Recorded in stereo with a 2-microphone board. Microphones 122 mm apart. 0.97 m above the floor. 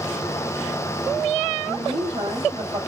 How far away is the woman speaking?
About 1.8 m.